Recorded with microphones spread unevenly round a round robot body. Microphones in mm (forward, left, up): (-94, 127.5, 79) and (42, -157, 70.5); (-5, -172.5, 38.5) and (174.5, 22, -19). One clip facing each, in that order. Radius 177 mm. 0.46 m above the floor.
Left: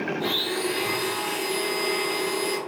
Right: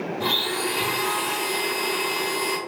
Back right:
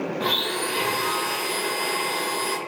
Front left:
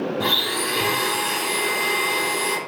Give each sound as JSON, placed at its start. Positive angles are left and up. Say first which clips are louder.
{"t": 0.2, "sound": "a blender", "louder": "even, front left 1 dB", "azimuth_deg": 5, "distance_m": 1.4}